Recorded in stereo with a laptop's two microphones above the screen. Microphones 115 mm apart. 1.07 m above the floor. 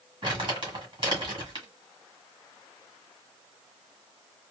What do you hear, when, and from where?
0.2 s crumpling: 45° right (ahead or behind), 1.7 m